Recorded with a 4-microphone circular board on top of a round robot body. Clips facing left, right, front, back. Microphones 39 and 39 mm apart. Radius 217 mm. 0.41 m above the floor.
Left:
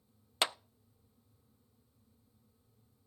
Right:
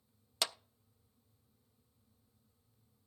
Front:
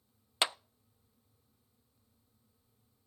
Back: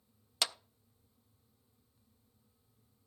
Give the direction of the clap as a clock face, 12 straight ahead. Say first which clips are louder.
Left 5 dB, front 4 dB; 10 o'clock.